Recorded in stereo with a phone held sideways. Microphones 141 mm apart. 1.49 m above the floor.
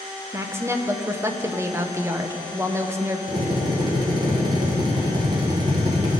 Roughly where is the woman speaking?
Centre.